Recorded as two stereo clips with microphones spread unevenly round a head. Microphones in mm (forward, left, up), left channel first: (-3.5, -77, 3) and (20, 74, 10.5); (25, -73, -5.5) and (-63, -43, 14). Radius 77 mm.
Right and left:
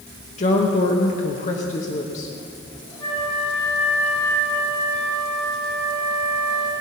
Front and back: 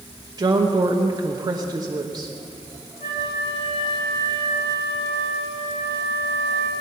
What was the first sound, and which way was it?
A woman speaking, 150° right.